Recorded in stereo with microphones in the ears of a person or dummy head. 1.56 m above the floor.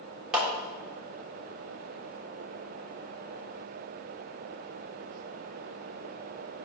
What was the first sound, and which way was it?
A clap, centre (ahead or behind).